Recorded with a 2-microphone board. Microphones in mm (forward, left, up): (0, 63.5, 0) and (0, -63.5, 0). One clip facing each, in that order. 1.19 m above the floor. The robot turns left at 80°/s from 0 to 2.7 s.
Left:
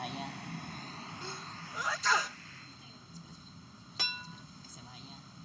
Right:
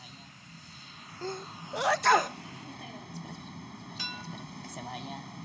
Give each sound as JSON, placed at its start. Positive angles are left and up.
{"t": 0.0, "sound": "a vehicle", "azimuth_deg": 115}
{"t": 1.2, "sound": "a sneeze", "side_deg": -45}
{"t": 4.0, "sound": "a clink", "side_deg": 70}